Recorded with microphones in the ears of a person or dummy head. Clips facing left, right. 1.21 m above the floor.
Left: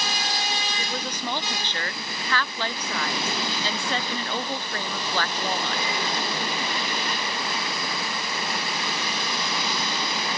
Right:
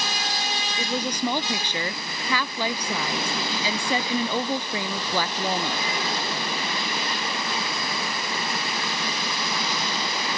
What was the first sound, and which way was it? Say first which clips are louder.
A woman speaking: right 5 dB; 5° right (ahead or behind).